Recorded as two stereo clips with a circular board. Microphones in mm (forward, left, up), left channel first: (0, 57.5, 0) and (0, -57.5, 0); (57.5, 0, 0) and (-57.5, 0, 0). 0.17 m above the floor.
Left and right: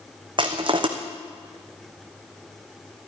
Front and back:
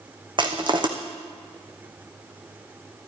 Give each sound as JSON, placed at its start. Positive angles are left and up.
{"t": 0.4, "sound": "crushing", "azimuth_deg": -135, "distance_m": 2.0}